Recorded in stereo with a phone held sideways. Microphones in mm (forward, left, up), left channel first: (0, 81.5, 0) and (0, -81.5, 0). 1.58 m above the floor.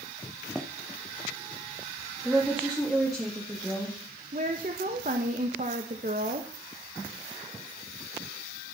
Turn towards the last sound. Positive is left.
turn(degrees=-55)  # may be behind; listen again after turning